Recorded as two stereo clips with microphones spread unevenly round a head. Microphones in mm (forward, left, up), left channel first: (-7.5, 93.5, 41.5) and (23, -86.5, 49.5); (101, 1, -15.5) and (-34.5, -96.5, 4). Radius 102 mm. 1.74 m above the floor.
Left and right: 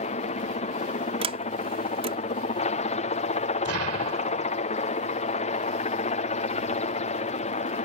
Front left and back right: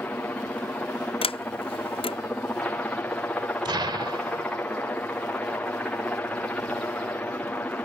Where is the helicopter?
110° left.